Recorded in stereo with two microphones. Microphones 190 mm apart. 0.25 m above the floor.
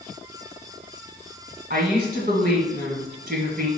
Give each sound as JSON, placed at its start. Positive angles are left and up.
{"t": 1.7, "sound": "a woman speaking", "side_deg": -55, "distance_m": 1.7}